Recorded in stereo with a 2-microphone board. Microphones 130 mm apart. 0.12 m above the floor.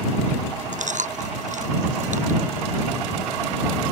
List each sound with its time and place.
0.7 s chewing: 75° right (ahead or behind)